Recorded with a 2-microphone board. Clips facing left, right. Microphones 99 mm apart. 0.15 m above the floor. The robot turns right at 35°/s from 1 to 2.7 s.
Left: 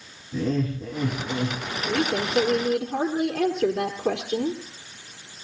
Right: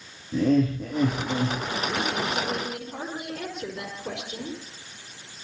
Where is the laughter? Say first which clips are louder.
Right 4 dB; 70° right (ahead or behind), 7 m; by 1.6 s 50° right (ahead or behind), 7 m.